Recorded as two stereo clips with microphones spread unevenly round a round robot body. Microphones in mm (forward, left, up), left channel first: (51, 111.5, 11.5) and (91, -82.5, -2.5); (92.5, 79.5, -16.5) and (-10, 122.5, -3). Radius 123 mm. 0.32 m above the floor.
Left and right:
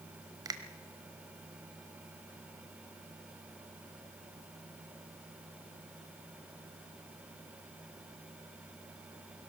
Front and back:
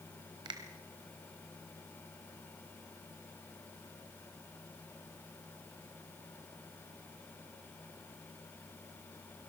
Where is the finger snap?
145° right, 1.2 m.